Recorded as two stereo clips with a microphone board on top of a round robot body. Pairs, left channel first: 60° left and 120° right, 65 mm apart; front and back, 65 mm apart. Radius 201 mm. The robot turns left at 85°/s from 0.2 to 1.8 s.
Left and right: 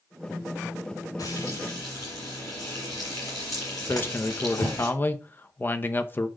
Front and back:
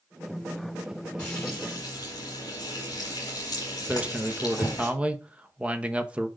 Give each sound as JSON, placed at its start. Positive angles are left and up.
{"t": 1.2, "sound": "frying", "azimuth_deg": 75, "distance_m": 0.8}
{"t": 3.9, "sound": "a man speaking", "azimuth_deg": 110, "distance_m": 1.0}